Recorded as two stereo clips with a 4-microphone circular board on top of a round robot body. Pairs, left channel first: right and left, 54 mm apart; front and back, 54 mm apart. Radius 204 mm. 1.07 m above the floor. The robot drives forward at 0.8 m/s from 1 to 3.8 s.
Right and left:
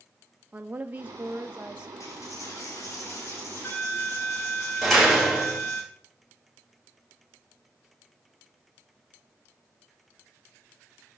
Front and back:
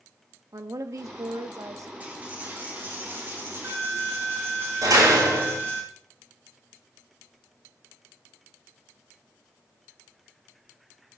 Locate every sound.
0.5 s a woman speaking: 150° left, 1.0 m; by 1.9 s 160° left, 1.7 m
2.0 s a dropped coin: 115° right, 3.5 m; by 5.8 s 135° right, 4 m
4.8 s a door slam: 175° right, 3.5 m